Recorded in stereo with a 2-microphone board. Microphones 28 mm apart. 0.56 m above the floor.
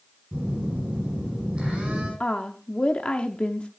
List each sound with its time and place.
0.3 s a phone buzzing: 40° right (ahead or behind), 7 m
2.2 s a woman speaking: 40° left (ahead or behind), 0.7 m